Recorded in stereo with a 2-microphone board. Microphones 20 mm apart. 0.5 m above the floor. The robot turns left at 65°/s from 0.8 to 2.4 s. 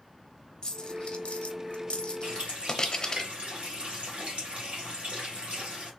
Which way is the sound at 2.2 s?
60° right (ahead or behind).